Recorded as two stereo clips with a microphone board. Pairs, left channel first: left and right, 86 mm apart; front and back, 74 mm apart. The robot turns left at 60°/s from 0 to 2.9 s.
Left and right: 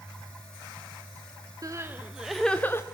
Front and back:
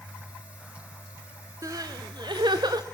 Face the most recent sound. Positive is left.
turn(degrees=145)